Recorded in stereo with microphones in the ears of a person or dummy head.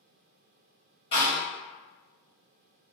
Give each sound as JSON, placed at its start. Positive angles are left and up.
{"t": 1.1, "sound": "a door slam", "side_deg": 30, "distance_m": 1.9}